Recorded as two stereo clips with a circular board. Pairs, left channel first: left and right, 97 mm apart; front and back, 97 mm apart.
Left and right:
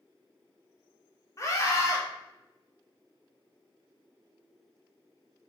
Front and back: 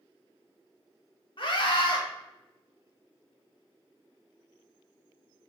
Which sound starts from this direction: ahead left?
A scream, at 1.4 s.